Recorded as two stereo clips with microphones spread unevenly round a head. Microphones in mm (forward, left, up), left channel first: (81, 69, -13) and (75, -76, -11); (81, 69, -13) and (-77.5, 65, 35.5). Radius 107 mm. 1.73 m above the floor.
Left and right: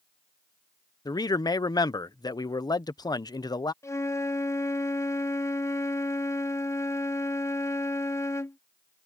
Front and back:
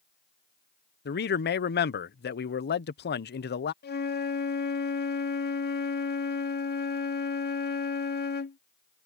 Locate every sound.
1.1 s a man speaking: 25° left
3.8 s a flute: 15° left